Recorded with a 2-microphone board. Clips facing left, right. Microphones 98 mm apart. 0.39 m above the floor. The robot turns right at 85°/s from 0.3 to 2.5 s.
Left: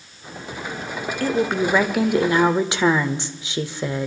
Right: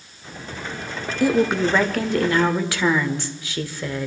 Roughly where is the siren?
I don't hear a siren.